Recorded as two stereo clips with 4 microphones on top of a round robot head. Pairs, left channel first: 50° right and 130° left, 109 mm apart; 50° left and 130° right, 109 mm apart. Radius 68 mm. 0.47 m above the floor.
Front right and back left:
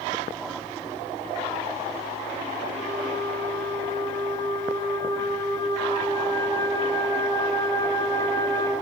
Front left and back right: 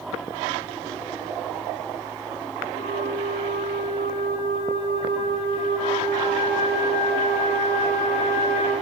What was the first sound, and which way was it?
A flute, 10° left.